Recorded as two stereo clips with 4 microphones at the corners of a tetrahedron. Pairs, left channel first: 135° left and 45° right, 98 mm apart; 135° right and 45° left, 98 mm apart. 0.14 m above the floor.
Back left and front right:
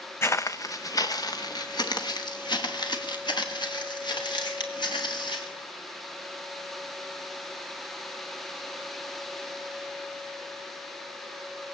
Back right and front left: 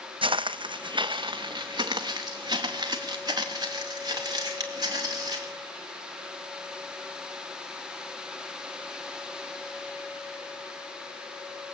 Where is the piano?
I don't hear a piano.